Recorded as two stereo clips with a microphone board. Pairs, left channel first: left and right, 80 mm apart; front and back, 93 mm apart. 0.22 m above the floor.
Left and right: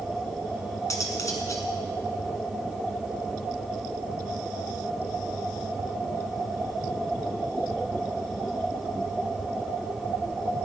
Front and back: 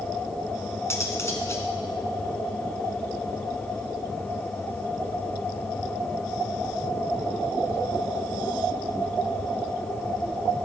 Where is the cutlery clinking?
55° left, 1.3 m.